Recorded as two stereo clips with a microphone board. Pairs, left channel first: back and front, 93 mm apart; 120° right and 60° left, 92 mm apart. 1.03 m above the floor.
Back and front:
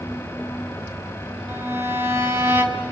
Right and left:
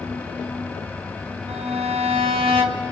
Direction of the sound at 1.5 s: 65° left.